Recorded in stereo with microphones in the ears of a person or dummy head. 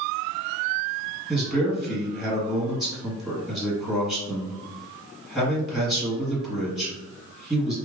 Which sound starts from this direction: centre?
A man speaking, at 1.3 s.